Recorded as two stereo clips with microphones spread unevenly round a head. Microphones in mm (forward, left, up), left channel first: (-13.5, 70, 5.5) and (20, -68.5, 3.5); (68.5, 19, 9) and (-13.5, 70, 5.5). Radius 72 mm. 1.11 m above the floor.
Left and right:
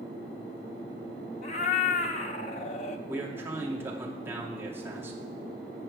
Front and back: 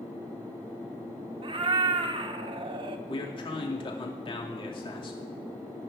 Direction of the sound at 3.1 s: Straight ahead.